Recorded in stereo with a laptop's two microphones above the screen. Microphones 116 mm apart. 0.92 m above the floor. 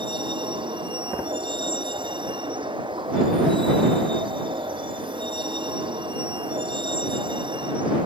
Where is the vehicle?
45° right (ahead or behind).